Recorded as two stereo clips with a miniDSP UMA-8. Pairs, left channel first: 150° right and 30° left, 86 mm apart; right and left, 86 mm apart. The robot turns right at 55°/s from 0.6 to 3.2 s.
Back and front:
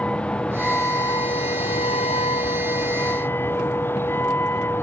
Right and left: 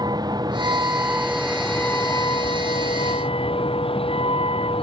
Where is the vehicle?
130° left; by 4.8 s 85° right.